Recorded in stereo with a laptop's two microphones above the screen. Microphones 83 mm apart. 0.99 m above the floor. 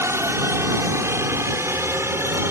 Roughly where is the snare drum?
No snare drum in this recording.